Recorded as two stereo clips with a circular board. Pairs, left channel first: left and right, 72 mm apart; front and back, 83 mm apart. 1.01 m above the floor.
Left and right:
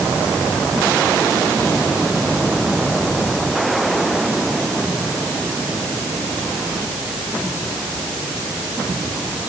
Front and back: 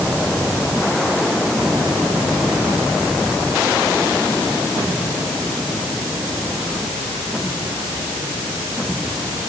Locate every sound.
Only background noise.